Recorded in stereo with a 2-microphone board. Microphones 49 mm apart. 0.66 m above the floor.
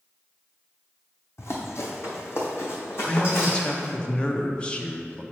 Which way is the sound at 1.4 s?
65° left (ahead or behind).